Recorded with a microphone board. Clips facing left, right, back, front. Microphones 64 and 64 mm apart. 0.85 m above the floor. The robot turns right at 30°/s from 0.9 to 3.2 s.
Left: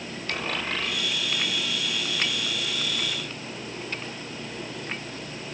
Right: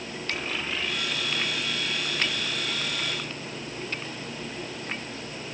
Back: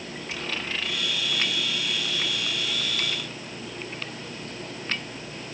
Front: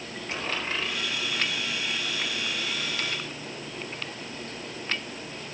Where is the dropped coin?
50° left, 10 m; by 1.0 s 55° left, 10 m.